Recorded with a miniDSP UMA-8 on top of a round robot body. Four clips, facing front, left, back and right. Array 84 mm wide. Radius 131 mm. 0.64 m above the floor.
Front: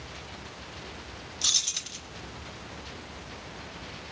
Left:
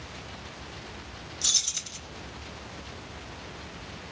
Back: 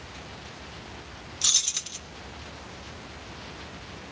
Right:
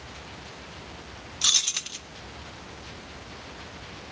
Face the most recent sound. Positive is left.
turn(degrees=-95)